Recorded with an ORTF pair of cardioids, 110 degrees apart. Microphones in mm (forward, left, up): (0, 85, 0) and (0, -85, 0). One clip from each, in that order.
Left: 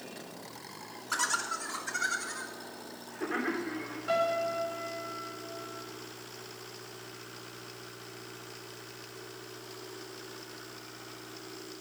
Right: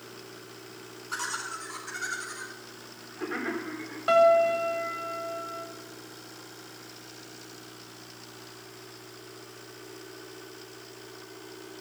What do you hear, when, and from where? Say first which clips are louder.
1.1 s laughter: left 2 dB; 30° left, 3 m; by 4.0 s 5° right, 4 m
4.1 s a piano: right 10 dB; 65° right, 2.0 m